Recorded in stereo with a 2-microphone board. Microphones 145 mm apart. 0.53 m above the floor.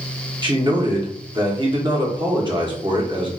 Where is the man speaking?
35° right (ahead or behind), 1.0 m.